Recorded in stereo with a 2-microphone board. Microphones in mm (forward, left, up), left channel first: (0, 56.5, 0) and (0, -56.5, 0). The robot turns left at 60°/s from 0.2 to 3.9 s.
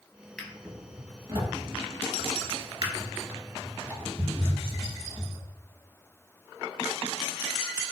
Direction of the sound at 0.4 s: 10° left (ahead or behind).